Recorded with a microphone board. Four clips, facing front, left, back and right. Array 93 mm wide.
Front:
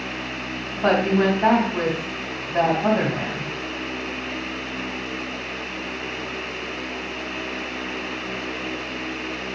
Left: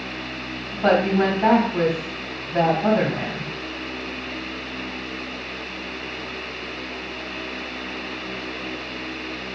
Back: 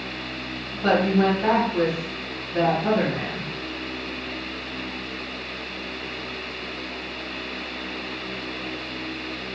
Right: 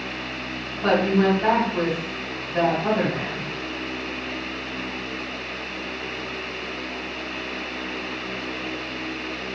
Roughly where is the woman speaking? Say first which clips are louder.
Left 2 dB, front 1 dB; ahead left.